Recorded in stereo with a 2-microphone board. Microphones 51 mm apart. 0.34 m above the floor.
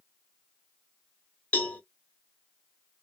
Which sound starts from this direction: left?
A cowbell, at 1.5 s.